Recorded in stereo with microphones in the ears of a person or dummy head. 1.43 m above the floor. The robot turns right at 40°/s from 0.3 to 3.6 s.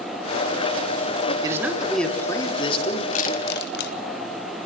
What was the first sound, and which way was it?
A man speaking, 25° right.